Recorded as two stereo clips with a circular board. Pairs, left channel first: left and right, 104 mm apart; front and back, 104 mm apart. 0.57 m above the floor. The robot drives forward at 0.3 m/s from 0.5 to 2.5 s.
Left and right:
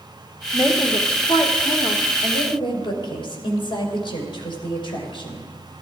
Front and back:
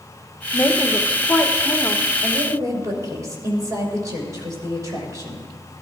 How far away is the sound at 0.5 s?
About 1.6 m.